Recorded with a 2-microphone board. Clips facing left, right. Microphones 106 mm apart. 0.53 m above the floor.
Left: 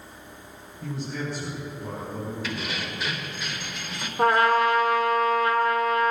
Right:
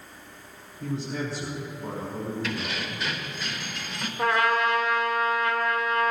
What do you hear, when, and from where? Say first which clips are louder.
0.8 s a man speaking: right 2 dB; 35° right (ahead or behind), 5.5 m
2.4 s keys jangling: even; centre (ahead or behind), 1.5 m
4.2 s a trumpet: left 4 dB; 40° left (ahead or behind), 1.7 m